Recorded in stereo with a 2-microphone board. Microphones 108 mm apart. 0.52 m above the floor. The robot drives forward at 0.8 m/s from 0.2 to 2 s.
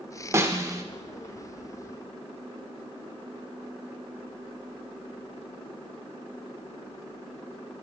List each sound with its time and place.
0.3 s a snare drum: 25° right (ahead or behind), 1.2 m; by 0.8 s 30° right (ahead or behind), 1.0 m